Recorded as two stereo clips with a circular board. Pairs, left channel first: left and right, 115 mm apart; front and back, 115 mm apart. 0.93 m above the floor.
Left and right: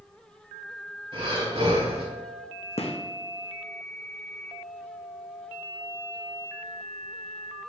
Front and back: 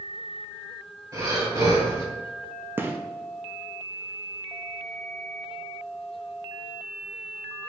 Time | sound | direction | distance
1.1 | breathing | 125° right | 1.4 m
2.8 | a gunshot | 110° left | 0.5 m